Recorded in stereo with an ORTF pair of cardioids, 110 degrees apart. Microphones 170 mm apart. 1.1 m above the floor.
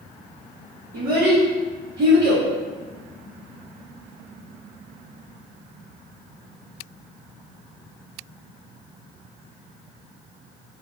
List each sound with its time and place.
0.9 s a child speaking: 70° right, 1.2 m